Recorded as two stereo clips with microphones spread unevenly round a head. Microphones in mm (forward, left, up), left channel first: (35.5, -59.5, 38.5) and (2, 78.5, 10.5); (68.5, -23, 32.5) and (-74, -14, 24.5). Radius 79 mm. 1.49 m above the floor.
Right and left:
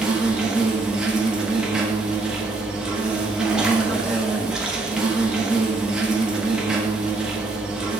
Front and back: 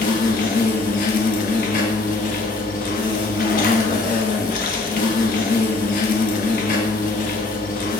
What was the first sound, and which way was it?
An insect, 10° left.